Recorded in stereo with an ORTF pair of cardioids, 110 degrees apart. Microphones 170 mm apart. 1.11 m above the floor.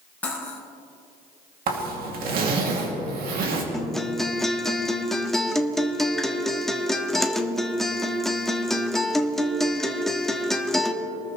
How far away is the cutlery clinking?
About 4 m.